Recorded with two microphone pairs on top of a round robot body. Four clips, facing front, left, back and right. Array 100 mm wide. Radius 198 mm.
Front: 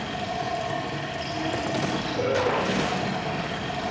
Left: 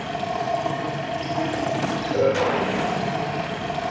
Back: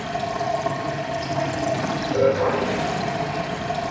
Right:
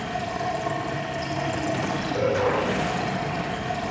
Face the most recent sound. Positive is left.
turn(degrees=130)